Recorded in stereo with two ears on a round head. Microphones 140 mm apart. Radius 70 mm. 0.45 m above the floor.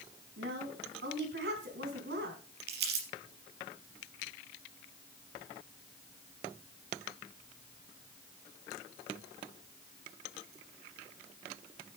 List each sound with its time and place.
0.4 s a woman speaking: 75° right (ahead or behind), 4.5 m
2.7 s crumpling: 75° right (ahead or behind), 4 m